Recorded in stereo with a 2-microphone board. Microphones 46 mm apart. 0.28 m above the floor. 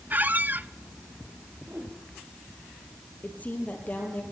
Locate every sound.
0.1 s a squeak: 40° right (ahead or behind), 0.7 m
1.6 s a whoosh: 45° right (ahead or behind), 5.5 m
3.2 s a woman speaking: 35° left (ahead or behind), 8 m